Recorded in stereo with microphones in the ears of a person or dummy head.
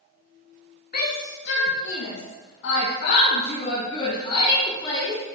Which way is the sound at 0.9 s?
50° left (ahead or behind).